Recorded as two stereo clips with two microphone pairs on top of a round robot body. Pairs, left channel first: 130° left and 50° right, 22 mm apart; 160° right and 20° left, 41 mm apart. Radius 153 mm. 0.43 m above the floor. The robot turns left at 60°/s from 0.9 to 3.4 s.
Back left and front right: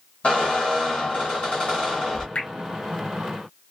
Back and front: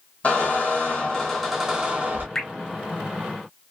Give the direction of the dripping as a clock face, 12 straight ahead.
8 o'clock.